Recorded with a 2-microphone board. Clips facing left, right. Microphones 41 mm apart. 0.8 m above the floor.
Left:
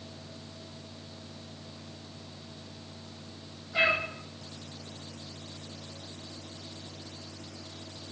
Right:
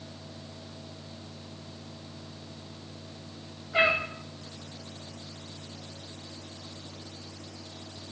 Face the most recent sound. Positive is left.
turn(degrees=-30)  # may be behind; listen again after turning